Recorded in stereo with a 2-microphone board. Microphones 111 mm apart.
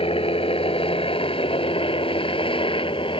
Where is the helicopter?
60° left (ahead or behind); by 3.2 s 50° left (ahead or behind).